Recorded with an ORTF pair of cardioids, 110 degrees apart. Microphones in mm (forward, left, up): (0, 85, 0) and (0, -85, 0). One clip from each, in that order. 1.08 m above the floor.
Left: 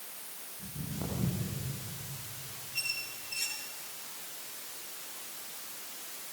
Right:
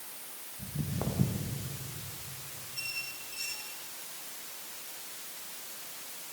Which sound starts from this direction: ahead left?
A squeak, at 2.7 s.